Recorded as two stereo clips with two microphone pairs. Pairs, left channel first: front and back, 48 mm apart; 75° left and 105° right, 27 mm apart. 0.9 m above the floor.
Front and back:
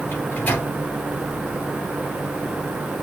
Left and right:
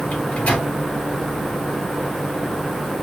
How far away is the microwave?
About 2.5 m.